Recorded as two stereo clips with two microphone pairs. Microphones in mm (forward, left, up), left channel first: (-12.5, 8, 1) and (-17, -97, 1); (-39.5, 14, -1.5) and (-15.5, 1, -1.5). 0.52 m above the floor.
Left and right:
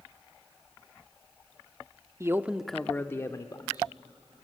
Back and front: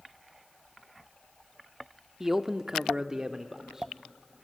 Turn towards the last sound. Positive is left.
turn(degrees=40)